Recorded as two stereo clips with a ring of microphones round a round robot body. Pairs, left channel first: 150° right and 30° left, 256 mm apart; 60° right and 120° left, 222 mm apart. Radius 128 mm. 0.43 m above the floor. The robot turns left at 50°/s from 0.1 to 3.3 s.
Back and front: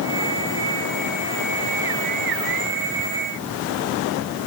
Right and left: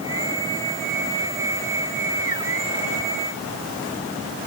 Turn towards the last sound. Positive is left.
No sound to turn to.